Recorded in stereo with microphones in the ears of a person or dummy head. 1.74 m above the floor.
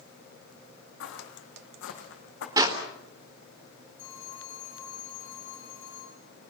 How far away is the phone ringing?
About 8.5 m.